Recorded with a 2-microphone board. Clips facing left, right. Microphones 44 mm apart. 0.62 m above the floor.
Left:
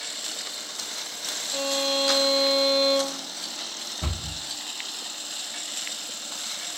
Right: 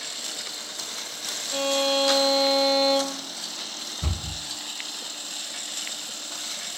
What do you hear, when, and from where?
1.5 s a violin: 45° right (ahead or behind), 0.5 m
4.0 s a cupboard door: 55° left (ahead or behind), 1.0 m